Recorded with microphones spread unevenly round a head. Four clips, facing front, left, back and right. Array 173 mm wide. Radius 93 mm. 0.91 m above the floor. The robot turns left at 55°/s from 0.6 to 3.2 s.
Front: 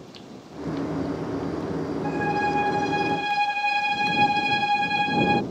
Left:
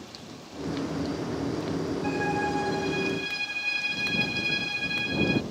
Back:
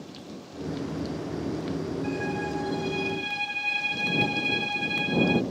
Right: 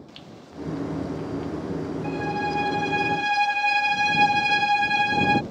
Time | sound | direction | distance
2.0 | a violin | 15° left | ?